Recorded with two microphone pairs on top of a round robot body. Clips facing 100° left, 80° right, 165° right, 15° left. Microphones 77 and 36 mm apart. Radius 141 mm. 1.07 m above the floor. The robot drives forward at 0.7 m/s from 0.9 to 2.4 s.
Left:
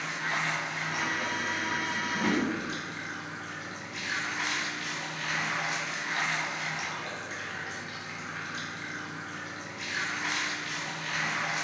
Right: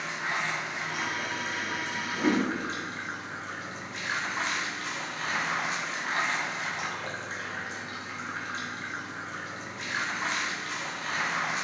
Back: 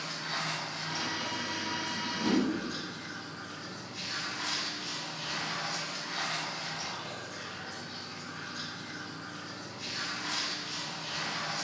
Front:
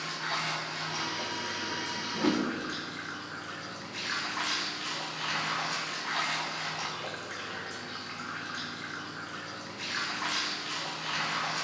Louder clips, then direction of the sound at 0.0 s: Even, front 3 dB; 15° right.